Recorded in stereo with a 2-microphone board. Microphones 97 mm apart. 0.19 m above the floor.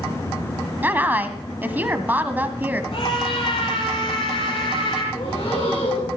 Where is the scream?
65° left (ahead or behind), 7 m.